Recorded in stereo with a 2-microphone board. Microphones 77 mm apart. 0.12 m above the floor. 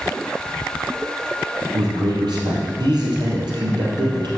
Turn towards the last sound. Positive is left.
turn(degrees=-70)  # may be behind; listen again after turning